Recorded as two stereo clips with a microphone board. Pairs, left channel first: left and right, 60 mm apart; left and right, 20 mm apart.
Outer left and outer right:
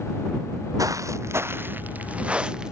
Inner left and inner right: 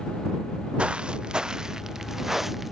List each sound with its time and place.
0.8 s footsteps: 65° right (ahead or behind); by 2.7 s 10° right (ahead or behind)